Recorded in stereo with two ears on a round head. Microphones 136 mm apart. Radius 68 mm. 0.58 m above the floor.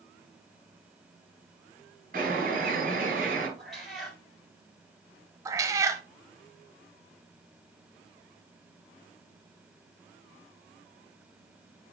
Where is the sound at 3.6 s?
Centre (ahead or behind), 4.5 m.